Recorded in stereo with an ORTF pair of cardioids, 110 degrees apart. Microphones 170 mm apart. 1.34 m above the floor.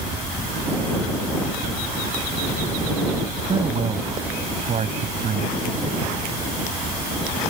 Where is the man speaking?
35° right; by 5.7 s 50° right.